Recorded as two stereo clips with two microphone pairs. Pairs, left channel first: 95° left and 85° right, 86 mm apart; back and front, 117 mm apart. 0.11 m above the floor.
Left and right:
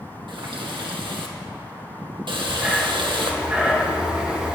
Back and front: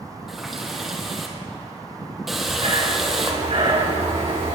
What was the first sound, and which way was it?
A running tap, 85° right.